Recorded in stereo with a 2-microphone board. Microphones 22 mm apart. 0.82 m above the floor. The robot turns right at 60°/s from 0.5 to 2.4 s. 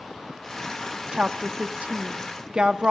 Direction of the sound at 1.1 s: 50° right (ahead or behind).